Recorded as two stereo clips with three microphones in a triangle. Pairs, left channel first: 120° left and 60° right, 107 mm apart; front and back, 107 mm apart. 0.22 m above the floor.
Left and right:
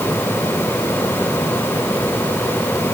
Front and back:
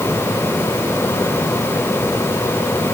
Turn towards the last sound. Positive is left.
No sound to turn to.